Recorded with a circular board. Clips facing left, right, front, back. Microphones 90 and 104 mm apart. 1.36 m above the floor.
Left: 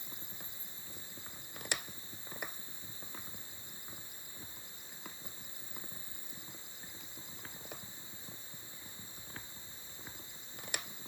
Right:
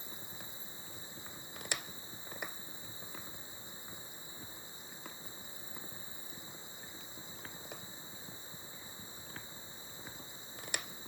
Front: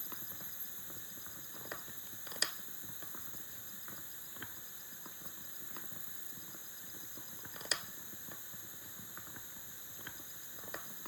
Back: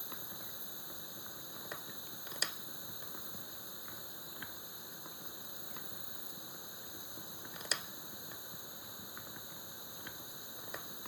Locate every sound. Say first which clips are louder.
0.0 s an insect: right 2 dB, back 3 dB; 110° left